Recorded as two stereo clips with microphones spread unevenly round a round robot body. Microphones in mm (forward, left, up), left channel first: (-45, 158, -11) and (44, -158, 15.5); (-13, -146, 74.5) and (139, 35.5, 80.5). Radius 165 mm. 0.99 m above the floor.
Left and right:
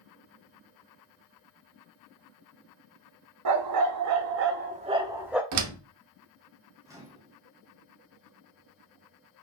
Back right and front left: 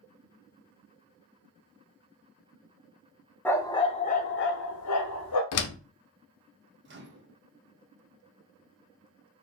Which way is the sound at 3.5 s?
50° right.